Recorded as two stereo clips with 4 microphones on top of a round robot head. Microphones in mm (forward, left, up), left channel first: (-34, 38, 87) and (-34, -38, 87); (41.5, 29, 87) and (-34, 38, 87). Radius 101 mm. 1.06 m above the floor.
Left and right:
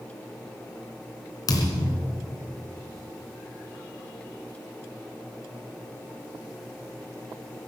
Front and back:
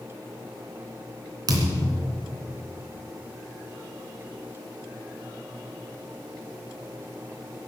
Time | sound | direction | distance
1.5 | a thud | 130° left | 3 m